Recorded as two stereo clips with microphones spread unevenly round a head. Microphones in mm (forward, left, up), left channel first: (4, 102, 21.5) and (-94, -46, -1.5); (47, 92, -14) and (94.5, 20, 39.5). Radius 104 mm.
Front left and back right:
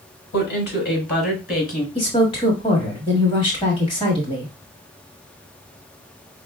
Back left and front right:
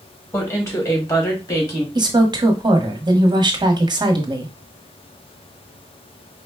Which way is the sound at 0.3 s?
80° left.